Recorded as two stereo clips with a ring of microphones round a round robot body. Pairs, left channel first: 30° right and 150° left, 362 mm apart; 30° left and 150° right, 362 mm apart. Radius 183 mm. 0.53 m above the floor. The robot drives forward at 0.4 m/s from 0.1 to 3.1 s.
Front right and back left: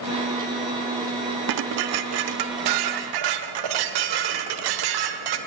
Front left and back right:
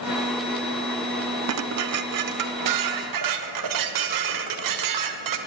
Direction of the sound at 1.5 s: 165° left.